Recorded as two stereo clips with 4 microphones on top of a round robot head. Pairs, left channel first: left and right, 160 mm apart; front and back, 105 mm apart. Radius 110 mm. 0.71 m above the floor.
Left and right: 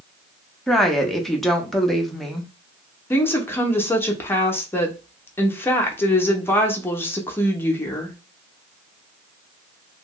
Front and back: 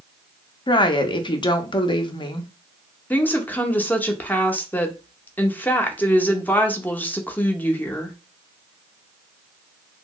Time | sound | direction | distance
0.7 | a woman speaking | straight ahead | 0.6 m
3.1 | a woman speaking | 40° left | 0.7 m